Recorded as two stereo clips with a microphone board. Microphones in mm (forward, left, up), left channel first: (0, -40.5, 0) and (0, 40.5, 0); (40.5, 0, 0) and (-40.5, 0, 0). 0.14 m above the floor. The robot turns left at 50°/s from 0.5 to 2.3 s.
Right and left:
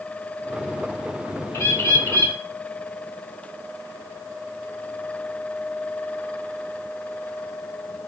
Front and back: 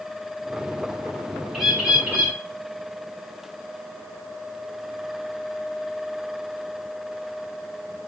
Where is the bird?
95° right, 0.9 m; by 2.4 s 135° right, 0.9 m.